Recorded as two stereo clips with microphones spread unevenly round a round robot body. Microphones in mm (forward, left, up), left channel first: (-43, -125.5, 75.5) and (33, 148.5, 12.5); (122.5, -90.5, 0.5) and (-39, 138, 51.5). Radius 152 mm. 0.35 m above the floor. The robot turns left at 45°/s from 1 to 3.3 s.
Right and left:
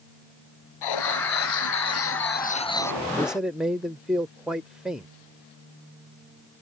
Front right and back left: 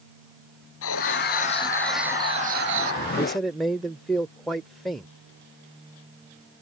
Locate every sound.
0.8 s writing: 100° right; by 3.0 s 165° left
3.2 s a man speaking: 20° left; by 5.1 s 15° left